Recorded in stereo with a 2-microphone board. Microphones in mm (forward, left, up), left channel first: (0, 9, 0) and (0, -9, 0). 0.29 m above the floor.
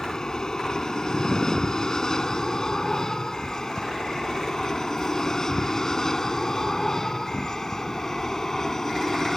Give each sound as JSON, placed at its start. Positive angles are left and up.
{"t": 0.0, "sound": "an aircraft", "side_deg": 35}